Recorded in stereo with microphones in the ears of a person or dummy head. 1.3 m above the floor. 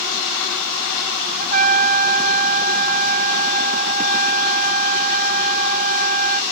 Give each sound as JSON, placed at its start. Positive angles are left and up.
{"t": 1.4, "sound": "a trumpet", "side_deg": -35}